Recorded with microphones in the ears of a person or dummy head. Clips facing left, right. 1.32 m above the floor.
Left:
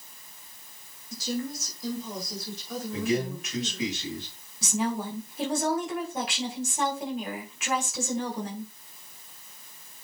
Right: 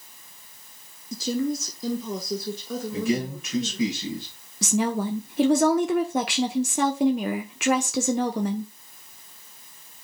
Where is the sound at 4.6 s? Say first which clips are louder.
Right 5 dB; 50° right (ahead or behind), 0.7 m.